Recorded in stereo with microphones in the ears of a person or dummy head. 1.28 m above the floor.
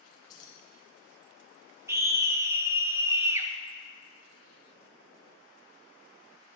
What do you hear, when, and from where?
0.3 s keys jangling: 25° left (ahead or behind), 3.5 m
1.9 s a scream: 15° right (ahead or behind), 1.8 m